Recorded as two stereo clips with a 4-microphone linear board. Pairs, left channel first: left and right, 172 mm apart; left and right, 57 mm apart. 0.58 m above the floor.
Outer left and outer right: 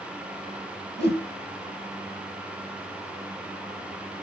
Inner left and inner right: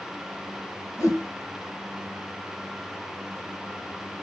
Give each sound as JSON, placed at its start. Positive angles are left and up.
{"t": 1.0, "sound": "a whoosh", "side_deg": 80, "distance_m": 1.0}